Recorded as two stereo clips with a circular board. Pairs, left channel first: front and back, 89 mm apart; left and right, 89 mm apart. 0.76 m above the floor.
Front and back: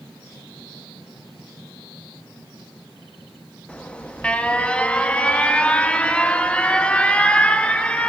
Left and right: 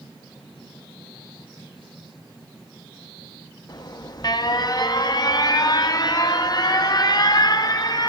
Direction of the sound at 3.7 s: 70° left.